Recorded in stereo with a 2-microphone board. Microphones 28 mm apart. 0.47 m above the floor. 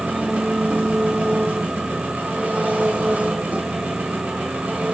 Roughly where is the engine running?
Right.